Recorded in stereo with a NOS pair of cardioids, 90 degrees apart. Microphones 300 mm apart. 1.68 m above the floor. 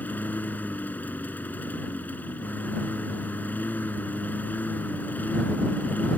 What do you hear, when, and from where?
0.0 s a lawn mower: 5° left